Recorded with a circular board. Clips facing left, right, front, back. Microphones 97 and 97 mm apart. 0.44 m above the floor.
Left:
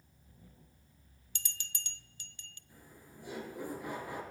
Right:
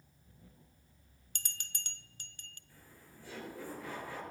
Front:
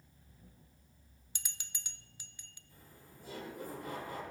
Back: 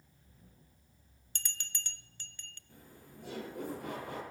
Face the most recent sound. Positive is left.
turn(degrees=160)